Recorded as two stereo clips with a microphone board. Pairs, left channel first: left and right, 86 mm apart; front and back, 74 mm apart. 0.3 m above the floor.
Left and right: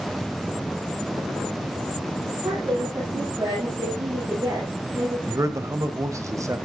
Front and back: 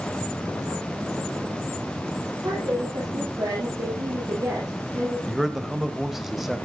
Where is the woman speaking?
145° right, 8 m.